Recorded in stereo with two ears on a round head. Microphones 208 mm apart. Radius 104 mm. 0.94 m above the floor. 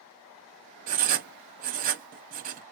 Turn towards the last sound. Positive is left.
turn(degrees=-35)  # may be behind; listen again after turning